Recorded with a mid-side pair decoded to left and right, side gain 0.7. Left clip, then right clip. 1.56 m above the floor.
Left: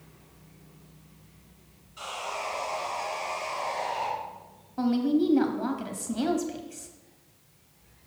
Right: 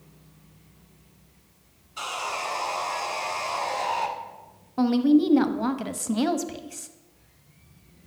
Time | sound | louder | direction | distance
2.0 | sawing | right 4 dB | 55° right | 1.7 m
4.8 | a woman speaking | right 5 dB | 30° right | 0.7 m